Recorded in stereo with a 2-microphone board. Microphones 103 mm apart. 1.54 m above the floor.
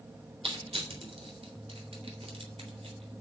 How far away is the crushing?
About 3.5 m.